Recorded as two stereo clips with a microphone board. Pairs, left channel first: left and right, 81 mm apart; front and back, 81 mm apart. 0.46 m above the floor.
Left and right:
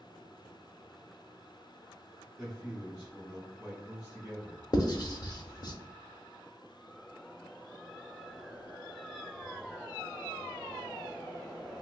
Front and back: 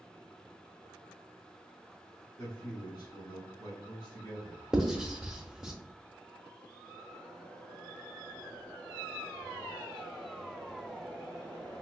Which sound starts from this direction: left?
Writing, at 4.7 s.